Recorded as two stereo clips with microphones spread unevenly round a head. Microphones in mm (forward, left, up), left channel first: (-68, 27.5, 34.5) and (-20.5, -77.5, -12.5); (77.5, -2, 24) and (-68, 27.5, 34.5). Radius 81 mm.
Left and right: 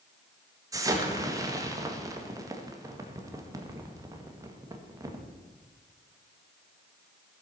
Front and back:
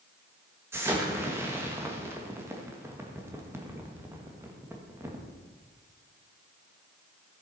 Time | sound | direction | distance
0.7 | an explosion | 115° right | 1.8 m